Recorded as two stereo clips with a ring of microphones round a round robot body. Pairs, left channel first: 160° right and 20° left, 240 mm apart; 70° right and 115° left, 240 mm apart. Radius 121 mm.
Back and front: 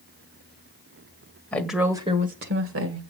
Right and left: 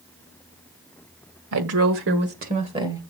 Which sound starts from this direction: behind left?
A woman speaking, at 1.5 s.